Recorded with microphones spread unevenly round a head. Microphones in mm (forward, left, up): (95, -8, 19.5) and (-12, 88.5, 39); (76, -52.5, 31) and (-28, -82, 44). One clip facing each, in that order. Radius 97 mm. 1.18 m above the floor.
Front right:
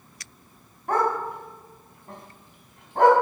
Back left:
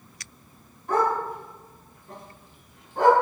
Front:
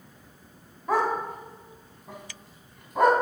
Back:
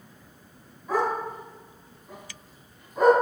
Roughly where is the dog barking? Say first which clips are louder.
Even, front 1 dB; ahead.